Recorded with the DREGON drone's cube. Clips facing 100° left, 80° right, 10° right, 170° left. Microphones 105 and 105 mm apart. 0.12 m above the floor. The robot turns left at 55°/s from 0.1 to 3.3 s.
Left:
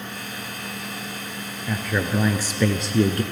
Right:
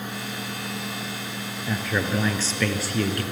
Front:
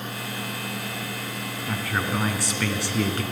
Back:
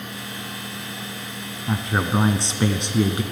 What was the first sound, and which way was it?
A man speaking, 160° right.